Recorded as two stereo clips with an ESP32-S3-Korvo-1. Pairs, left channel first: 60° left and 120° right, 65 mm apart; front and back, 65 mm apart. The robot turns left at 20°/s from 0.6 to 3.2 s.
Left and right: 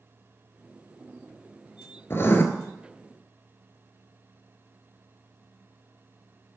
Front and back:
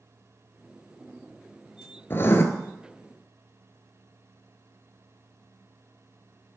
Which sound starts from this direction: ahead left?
Writing, at 2.1 s.